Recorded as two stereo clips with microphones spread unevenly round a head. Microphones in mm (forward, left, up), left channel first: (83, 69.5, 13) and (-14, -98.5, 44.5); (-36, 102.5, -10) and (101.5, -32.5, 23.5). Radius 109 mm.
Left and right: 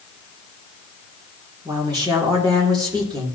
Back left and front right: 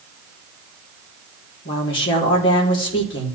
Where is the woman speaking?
165° left, 2.5 m.